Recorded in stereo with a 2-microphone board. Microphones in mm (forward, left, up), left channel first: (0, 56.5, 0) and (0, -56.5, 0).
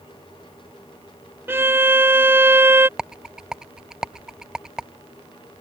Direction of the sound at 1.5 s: 20° right (ahead or behind).